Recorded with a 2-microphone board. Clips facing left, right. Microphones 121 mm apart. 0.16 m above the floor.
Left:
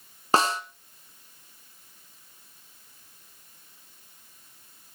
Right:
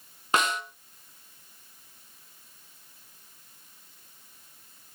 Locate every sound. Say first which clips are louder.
0.3 s a snare drum: left 3 dB; 35° left (ahead or behind), 1.2 m